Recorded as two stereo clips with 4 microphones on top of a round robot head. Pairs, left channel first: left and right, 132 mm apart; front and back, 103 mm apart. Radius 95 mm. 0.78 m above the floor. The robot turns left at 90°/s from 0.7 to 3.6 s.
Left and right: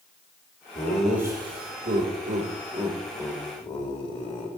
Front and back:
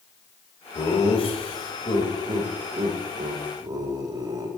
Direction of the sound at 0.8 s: 25° left.